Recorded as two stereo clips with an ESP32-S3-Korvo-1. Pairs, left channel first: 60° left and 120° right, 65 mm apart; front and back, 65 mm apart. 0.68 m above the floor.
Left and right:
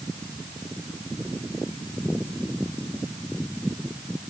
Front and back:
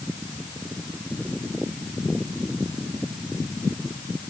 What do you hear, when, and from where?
Only background noise.